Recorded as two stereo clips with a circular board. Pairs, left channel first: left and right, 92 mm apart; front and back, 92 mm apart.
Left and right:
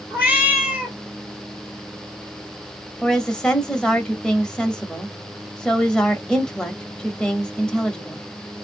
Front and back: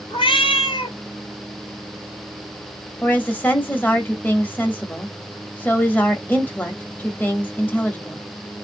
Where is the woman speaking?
25° left, 0.9 m.